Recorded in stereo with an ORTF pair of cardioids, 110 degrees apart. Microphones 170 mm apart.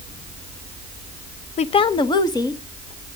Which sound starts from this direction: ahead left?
A woman speaking, at 1.6 s.